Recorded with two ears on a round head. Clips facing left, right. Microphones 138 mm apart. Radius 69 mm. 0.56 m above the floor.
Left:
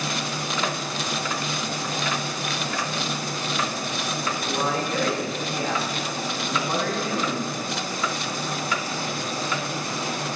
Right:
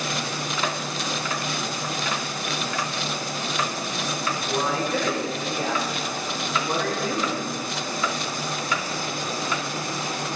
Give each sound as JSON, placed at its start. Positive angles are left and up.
{"t": 4.5, "sound": "a man speaking", "side_deg": -30, "distance_m": 3.5}